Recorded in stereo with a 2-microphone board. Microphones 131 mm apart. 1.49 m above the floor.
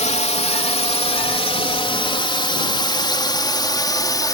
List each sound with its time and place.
0.0 s a drone: 60° left (ahead or behind); by 4.3 s 30° left (ahead or behind)